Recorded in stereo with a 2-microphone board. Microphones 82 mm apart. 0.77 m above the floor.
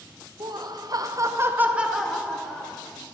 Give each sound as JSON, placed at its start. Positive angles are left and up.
{"t": 0.4, "sound": "laughter", "side_deg": -50, "distance_m": 0.8}